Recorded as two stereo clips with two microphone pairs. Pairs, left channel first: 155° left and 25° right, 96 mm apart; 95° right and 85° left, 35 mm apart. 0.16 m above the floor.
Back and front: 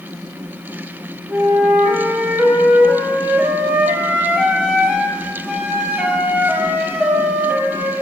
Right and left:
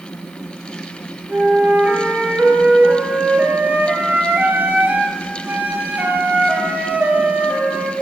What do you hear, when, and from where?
1.3 s a flute: 50° left, 1.5 m